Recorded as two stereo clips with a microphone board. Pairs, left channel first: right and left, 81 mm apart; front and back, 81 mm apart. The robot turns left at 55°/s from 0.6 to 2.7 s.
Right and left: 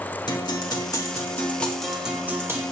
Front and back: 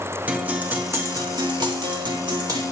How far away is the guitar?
About 1.6 m.